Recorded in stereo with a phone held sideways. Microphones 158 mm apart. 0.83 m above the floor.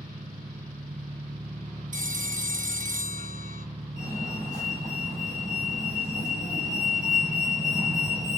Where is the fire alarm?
60° right (ahead or behind), 8.5 m.